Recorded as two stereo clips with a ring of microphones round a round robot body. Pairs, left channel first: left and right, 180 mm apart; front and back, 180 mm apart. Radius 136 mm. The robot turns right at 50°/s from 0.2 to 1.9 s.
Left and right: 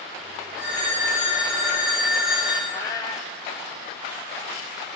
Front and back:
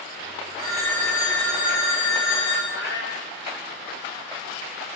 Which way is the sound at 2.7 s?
20° left.